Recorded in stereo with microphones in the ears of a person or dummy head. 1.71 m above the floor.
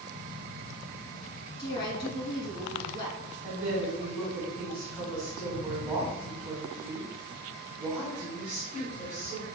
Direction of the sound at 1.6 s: 30° left (ahead or behind).